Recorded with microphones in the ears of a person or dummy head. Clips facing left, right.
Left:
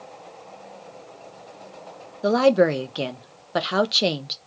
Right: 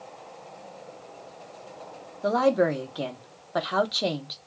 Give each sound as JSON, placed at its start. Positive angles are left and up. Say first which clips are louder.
{"t": 2.2, "sound": "a woman speaking", "louder": "left 5 dB", "side_deg": 35, "distance_m": 0.5}